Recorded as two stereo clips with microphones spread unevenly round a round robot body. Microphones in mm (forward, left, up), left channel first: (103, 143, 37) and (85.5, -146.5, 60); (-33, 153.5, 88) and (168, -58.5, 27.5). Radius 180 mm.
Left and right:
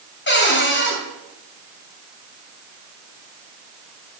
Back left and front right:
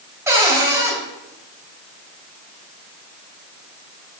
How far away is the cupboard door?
About 3.5 m.